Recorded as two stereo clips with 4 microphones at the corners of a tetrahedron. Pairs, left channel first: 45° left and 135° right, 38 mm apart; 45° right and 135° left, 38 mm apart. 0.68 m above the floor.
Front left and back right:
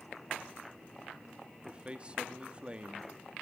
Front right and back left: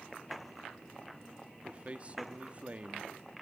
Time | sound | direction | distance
1.6 | a man speaking | 170° left | 1.1 m